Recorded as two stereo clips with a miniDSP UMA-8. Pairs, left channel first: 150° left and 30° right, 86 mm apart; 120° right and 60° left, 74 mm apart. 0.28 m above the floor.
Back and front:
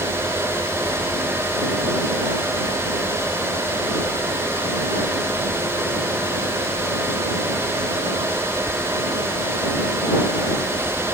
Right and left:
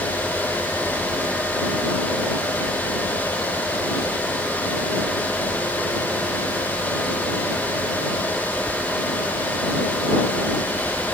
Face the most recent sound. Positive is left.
No sound to turn to.